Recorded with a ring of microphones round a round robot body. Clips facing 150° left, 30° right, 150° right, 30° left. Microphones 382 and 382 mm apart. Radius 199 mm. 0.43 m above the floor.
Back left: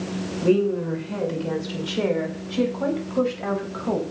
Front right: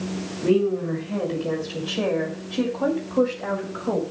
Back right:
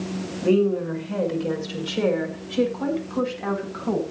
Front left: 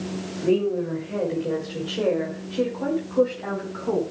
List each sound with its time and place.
0.4 s a woman speaking: 160° right, 6 m; by 4.0 s 175° left, 4.5 m